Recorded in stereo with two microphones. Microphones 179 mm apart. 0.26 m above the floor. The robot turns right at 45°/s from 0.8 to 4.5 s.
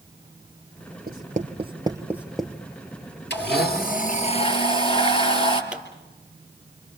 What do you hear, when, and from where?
1.1 s writing: 60° right (ahead or behind), 1.0 m; by 2.6 s 10° left (ahead or behind), 1.0 m
3.3 s a blender: 95° left, 3.5 m; by 5.6 s 150° left, 3.5 m
5.7 s a pop: 5° right (ahead or behind), 4.5 m